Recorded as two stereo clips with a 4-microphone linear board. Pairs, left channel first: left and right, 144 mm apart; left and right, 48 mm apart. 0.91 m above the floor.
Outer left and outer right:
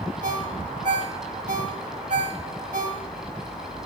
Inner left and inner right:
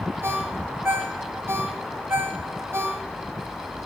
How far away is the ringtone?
About 2.5 m.